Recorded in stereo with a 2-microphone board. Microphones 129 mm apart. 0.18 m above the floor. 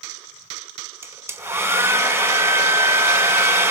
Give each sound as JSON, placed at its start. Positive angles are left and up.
{"t": 1.0, "sound": "a hair dryer", "side_deg": -20, "distance_m": 1.0}